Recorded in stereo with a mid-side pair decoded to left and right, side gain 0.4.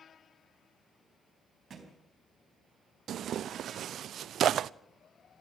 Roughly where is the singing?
I don't hear singing.